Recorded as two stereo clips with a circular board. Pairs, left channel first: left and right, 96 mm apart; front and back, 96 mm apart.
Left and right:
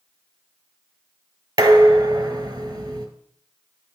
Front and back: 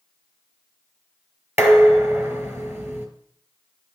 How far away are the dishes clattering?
About 1.2 m.